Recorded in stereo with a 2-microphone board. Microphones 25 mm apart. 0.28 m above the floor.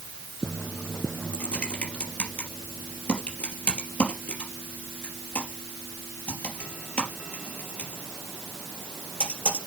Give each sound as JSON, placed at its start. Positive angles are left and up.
{"t": 1.3, "sound": "typing on a keyboard", "side_deg": 80, "distance_m": 3.5}